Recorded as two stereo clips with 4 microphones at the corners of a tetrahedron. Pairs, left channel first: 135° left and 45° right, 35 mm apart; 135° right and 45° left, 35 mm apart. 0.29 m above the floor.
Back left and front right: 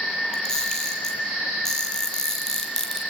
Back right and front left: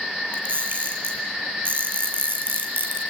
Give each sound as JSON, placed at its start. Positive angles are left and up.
{"t": 0.3, "sound": "a camera shutter", "azimuth_deg": 60, "distance_m": 8.0}